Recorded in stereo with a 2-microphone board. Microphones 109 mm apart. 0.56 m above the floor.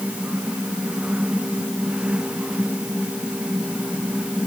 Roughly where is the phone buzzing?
No phone buzzing in this recording.